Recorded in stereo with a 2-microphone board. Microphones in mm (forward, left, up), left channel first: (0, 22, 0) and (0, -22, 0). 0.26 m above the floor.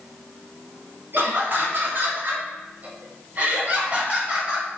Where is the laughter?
55° right (ahead or behind), 1.8 m; by 4.7 s 25° right (ahead or behind), 2 m.